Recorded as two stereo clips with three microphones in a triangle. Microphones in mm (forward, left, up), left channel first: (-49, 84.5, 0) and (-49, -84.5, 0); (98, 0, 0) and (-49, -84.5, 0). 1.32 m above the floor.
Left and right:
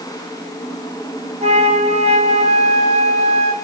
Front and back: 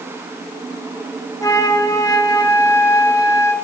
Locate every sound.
1.4 s a flute: 40° right, 1.1 m